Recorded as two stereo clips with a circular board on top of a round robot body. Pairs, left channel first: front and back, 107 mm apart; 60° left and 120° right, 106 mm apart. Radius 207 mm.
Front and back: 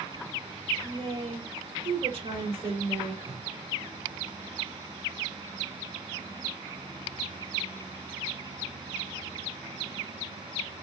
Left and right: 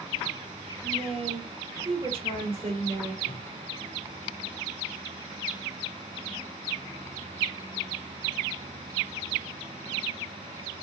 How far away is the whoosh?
About 0.5 m.